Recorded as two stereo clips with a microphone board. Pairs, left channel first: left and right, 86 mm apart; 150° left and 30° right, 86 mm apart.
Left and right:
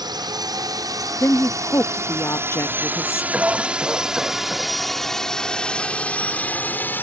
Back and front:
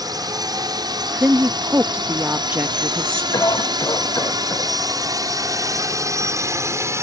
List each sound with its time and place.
0.0 s a drone: 60° right; by 7.0 s 25° left
1.2 s a woman speaking: 35° left
3.3 s a cough: 165° right